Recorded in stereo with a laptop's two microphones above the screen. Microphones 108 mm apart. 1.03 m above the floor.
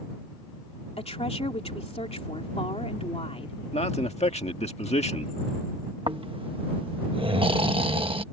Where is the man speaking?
80° left.